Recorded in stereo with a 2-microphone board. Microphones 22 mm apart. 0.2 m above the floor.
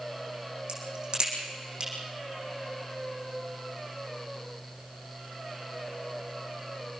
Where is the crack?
35° right (ahead or behind), 8 m.